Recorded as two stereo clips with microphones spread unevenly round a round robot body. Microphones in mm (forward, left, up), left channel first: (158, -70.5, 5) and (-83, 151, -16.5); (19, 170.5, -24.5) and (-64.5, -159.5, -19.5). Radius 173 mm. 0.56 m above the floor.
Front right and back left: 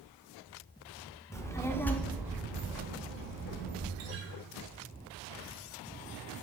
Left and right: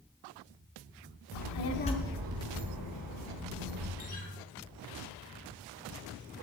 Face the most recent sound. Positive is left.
turn(degrees=145)